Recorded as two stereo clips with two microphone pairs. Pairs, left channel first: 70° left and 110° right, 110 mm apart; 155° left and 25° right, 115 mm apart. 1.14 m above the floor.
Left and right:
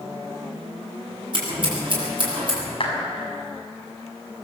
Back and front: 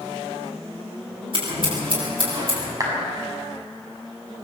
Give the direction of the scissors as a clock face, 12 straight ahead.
2 o'clock.